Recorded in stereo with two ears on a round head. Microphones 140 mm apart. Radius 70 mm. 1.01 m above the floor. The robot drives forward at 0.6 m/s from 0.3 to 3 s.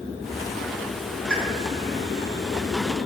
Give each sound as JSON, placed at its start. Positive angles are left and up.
{"t": 1.3, "sound": "a pop", "side_deg": -5, "distance_m": 3.0}